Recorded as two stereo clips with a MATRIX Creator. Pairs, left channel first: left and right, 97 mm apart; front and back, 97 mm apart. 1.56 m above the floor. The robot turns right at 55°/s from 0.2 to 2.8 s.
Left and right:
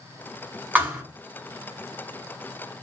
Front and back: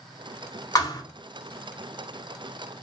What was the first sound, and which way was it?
A thud, 25° right.